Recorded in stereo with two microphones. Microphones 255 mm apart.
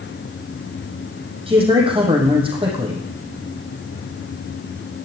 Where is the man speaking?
20° right (ahead or behind), 4.5 m.